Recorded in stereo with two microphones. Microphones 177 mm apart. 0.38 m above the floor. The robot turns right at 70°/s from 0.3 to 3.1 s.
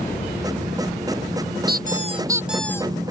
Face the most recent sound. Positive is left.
turn(degrees=35)